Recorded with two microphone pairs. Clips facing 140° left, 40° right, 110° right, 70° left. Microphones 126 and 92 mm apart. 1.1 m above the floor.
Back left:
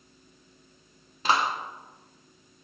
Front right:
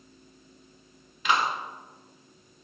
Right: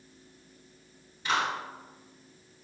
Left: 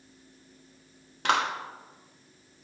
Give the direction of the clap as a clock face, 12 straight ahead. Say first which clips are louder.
Back left 1 dB, left 3 dB; 9 o'clock.